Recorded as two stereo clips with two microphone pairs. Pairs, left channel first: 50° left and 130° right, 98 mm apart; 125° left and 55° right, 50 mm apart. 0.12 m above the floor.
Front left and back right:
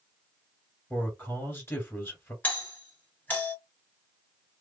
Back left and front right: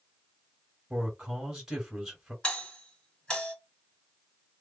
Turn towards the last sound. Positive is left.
turn(degrees=90)